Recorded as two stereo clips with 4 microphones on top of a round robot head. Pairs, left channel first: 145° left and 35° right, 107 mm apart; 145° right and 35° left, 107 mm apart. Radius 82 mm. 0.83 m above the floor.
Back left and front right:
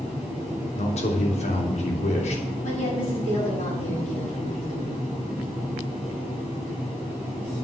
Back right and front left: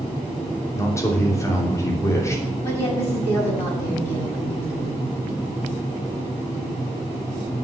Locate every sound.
0.8 s a man speaking: 150° left, 3 m
2.6 s a woman speaking: 150° left, 7 m